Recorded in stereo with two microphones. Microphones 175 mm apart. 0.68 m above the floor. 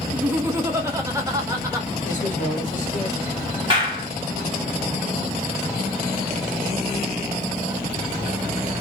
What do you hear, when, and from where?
0.1 s laughter: 10° right (ahead or behind), 0.7 m; by 1.9 s 20° right (ahead or behind), 1.0 m
2.0 s a man speaking: 50° left (ahead or behind), 1.0 m
3.7 s a clap: 30° right (ahead or behind), 1.4 m